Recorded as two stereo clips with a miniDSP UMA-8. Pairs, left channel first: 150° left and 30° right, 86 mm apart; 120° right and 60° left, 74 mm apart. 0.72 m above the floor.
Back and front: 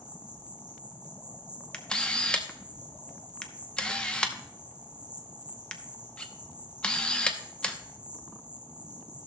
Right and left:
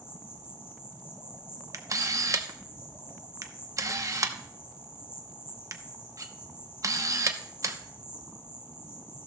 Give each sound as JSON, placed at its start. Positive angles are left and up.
{"t": 0.0, "sound": "an insect", "azimuth_deg": -65, "distance_m": 2.5}
{"t": 1.7, "sound": "a camera shutter", "azimuth_deg": 75, "distance_m": 0.7}